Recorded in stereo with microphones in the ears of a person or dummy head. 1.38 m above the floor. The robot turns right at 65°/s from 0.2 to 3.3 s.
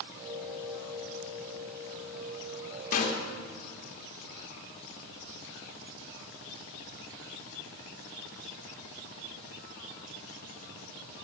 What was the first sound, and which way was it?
A snare drum, 40° left (ahead or behind).